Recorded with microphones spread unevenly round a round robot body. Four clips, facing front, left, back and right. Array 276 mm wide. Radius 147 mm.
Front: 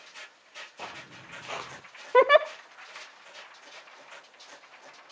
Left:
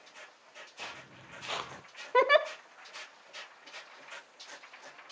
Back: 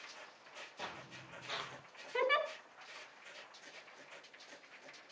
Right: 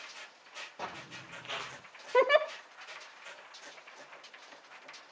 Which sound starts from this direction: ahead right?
Footsteps, at 0.8 s.